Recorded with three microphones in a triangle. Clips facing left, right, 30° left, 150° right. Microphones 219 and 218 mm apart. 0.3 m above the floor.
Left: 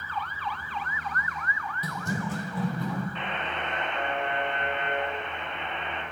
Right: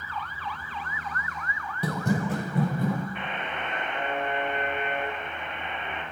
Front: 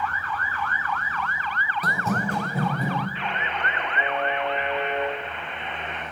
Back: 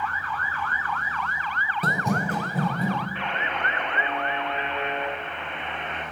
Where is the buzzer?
165° right, 4 m.